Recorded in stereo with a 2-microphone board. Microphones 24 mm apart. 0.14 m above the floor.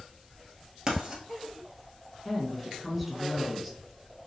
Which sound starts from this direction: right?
Writing, at 0.9 s.